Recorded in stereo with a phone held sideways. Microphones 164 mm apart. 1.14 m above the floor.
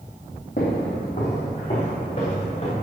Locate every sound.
0.6 s footsteps: 55° left (ahead or behind), 3 m; by 2.7 s 35° left (ahead or behind), 5 m